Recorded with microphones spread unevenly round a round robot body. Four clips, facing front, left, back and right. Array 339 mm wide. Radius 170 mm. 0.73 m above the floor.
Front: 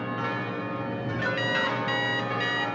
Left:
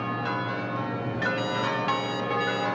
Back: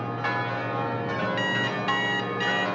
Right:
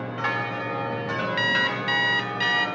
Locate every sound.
1.4 s an alarm clock: 105° right, 1.6 m